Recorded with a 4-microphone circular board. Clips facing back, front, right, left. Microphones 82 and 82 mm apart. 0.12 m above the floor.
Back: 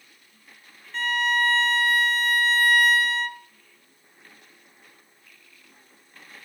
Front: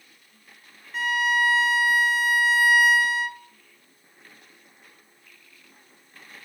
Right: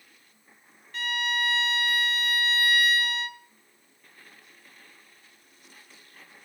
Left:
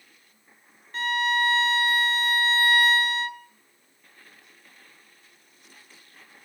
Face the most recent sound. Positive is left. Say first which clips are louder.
# front 1 dB, left 5 dB
turn(degrees=75)